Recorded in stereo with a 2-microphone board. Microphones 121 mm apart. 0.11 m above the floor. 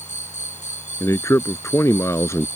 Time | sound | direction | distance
0.0 | an insect | 80° left | ?
1.0 | a man speaking | 25° left (ahead or behind) | ?